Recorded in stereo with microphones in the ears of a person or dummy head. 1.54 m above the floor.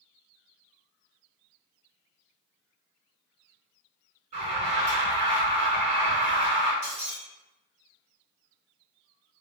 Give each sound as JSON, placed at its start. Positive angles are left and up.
{"t": 4.3, "sound": "an alarm", "side_deg": -35, "distance_m": 1.5}
{"t": 6.8, "sound": "breaking glass", "side_deg": -40, "distance_m": 1.3}